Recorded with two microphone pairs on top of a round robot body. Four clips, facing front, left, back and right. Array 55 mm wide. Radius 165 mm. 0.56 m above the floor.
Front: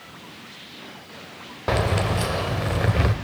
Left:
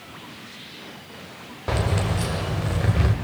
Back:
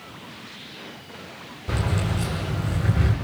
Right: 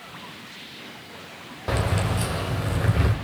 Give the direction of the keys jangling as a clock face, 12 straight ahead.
12 o'clock.